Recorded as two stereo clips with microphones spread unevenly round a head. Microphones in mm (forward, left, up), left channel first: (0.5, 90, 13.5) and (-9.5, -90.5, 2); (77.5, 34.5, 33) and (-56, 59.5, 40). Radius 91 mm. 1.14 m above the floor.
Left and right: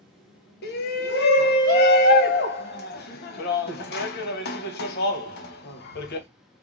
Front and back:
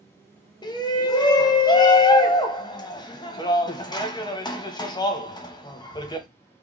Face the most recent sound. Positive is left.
turn(degrees=50)